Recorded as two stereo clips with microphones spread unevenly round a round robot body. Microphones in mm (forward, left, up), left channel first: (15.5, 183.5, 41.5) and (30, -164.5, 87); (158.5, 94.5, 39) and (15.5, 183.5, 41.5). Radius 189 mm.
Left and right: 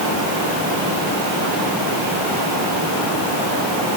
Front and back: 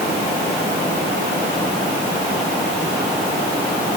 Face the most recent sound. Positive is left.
No sound to turn to.